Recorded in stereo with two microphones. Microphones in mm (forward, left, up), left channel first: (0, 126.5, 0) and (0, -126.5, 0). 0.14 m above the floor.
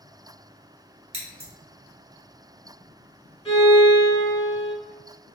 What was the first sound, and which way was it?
Scissors, 25° right (ahead or behind).